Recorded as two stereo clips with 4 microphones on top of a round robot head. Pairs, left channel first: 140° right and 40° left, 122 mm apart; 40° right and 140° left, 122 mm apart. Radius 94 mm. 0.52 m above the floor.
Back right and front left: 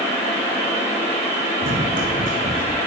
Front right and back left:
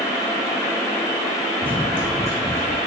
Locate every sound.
1.6 s running footsteps: 40° left, 2 m; by 2.8 s 25° left, 3 m